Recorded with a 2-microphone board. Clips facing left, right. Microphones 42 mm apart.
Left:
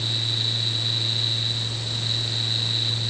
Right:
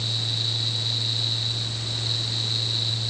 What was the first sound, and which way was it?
Only background noise.